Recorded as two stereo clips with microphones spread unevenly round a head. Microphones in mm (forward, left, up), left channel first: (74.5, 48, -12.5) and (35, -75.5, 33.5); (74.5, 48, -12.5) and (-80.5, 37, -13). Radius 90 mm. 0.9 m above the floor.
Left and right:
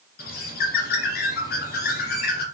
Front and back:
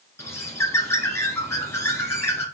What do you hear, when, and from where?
0.2 s a bird: 75° left, 2 m